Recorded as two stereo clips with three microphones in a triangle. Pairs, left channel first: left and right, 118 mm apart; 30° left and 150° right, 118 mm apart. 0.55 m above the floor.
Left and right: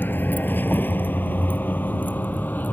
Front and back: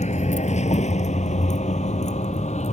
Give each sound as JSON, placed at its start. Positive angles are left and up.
{"t": 0.0, "sound": "a vehicle", "azimuth_deg": 15}